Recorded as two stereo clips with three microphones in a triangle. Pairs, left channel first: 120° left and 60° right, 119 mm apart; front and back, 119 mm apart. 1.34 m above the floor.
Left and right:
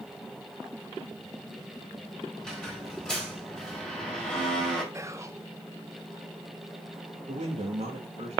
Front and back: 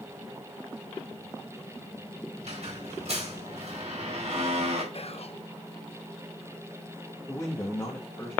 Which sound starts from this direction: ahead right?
A man speaking, at 7.3 s.